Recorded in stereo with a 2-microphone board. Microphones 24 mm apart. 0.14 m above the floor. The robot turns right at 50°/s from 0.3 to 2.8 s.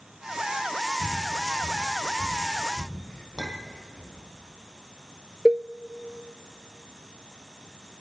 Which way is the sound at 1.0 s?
15° left (ahead or behind).